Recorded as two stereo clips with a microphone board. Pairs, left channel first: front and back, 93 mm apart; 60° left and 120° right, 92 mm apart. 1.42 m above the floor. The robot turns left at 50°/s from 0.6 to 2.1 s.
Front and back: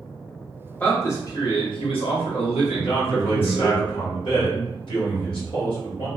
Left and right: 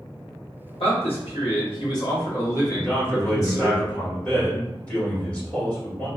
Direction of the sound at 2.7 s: 15° right.